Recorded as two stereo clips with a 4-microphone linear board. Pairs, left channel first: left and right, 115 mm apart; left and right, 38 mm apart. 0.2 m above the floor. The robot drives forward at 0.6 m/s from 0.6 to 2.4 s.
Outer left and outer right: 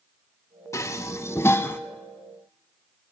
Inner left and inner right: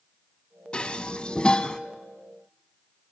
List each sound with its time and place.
0.7 s dishes clattering: 25° left (ahead or behind), 0.7 m; by 1.8 s 20° left (ahead or behind), 0.9 m